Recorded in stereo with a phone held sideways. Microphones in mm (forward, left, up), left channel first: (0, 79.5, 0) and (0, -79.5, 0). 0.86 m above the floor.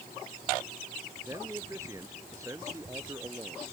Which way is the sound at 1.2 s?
20° right (ahead or behind).